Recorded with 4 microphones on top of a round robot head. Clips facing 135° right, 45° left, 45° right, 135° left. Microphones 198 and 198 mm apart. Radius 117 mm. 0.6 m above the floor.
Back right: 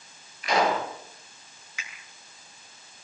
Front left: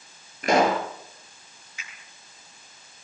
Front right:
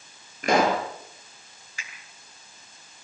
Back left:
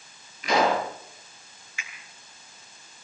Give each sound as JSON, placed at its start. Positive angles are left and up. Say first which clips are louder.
{"t": 0.4, "sound": "a pop", "louder": "front left 4 dB, front right 1 dB", "azimuth_deg": 0, "distance_m": 5.0}
{"t": 1.8, "sound": "a finger snap", "louder": "back right 2 dB, back left 1 dB", "azimuth_deg": -100, "distance_m": 8.5}